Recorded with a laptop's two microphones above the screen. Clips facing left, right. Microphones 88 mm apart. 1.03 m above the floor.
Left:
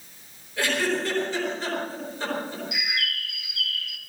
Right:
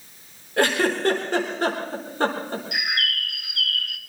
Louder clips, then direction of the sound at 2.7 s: Right 4 dB; 55° right (ahead or behind).